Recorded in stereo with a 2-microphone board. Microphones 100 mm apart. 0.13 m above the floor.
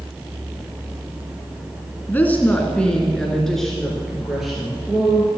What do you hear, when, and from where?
2.1 s a woman speaking: 20° left (ahead or behind), 1.7 m; by 5.3 s 5° right (ahead or behind), 3.5 m